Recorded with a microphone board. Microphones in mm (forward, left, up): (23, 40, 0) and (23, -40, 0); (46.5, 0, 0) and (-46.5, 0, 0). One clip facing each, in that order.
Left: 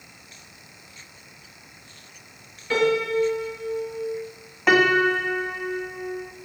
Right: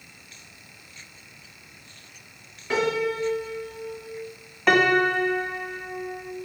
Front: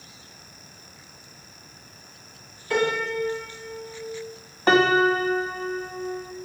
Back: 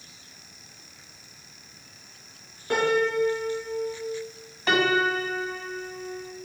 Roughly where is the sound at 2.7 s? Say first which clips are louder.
Left 3 dB, back 1 dB; behind.